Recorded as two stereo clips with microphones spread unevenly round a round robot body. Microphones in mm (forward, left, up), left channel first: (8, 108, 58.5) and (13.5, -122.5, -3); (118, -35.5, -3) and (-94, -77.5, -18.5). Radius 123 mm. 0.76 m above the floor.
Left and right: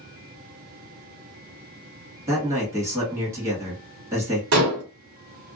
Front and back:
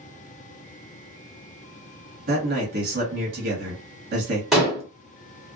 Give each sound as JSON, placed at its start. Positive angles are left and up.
{"t": 2.3, "sound": "a man speaking", "azimuth_deg": -150, "distance_m": 1.7}
{"t": 4.5, "sound": "dishes clattering", "azimuth_deg": -80, "distance_m": 1.2}